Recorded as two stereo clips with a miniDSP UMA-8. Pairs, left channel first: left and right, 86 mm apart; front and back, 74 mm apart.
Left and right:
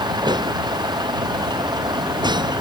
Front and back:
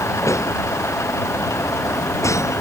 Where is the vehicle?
50° right.